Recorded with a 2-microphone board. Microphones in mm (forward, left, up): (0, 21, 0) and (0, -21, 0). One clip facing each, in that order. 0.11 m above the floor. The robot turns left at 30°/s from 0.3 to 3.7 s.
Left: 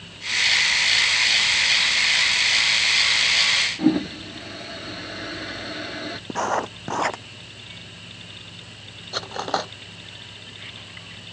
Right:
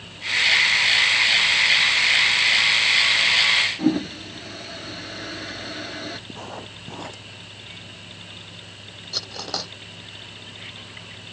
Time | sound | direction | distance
3.8 | a toilet flushing | 10° left (ahead or behind) | ?
6.3 | writing | 75° left (ahead or behind) | ?
9.1 | cutlery clinking | 35° left (ahead or behind) | ?